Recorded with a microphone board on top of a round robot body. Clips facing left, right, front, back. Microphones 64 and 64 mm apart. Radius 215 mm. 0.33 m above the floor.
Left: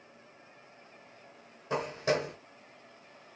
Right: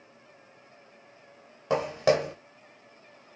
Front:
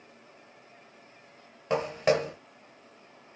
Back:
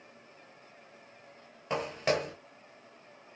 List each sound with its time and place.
1.7 s footsteps: 85° right, 0.8 m